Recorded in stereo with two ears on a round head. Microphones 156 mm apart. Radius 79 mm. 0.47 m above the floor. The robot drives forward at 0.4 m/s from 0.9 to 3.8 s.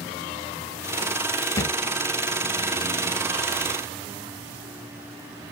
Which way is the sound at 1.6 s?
20° left (ahead or behind).